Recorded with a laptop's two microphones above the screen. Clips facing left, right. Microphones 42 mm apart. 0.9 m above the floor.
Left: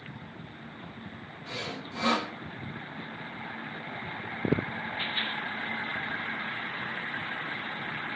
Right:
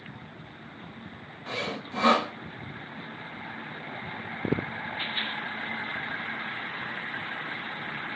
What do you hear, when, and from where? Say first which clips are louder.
1.5 s sawing: right 5 dB; 40° right (ahead or behind), 0.6 m